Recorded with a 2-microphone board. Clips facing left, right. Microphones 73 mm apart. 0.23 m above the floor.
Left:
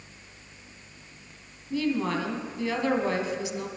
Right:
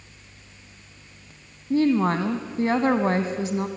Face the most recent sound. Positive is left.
turn(degrees=-40)  # may be behind; listen again after turning